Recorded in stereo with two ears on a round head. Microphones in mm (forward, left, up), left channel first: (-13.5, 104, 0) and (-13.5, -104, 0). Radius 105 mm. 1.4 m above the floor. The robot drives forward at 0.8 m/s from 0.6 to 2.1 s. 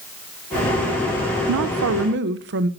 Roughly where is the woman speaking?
Right.